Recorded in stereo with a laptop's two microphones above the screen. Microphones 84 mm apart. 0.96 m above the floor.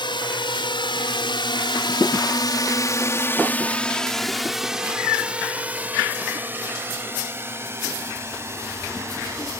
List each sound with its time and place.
0.0 s a drone: 65° left (ahead or behind); by 9.6 s 35° right (ahead or behind)